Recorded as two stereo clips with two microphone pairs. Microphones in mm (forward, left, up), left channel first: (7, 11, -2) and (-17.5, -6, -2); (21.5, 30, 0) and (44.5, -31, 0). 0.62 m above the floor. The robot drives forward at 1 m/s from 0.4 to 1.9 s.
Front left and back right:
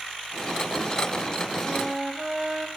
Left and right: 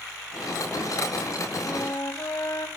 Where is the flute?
125° left, 1.0 m; by 2.7 s 135° left, 1.2 m.